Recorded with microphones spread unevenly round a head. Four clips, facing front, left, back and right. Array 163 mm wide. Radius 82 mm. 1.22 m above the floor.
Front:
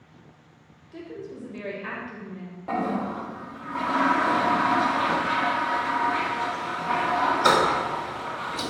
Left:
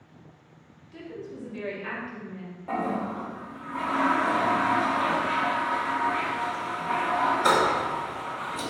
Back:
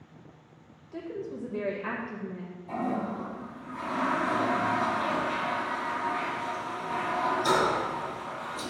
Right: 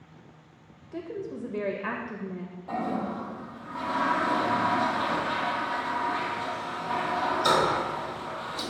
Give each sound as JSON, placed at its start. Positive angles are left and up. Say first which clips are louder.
{"t": 0.9, "sound": "a woman speaking", "louder": "right 4 dB, back 1 dB", "azimuth_deg": -110, "distance_m": 1.5}
{"t": 2.7, "sound": "a toilet flushing", "louder": "left 2 dB, front 4 dB", "azimuth_deg": 15, "distance_m": 0.7}